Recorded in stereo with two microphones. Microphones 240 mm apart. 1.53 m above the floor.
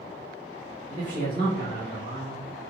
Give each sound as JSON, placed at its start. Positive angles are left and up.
{"t": 0.9, "sound": "a man speaking", "side_deg": 25, "distance_m": 1.4}